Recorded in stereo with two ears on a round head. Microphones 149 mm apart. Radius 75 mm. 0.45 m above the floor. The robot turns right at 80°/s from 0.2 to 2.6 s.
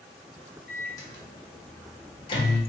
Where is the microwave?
5° left (ahead or behind), 0.8 m; by 2.6 s 15° left (ahead or behind), 0.8 m.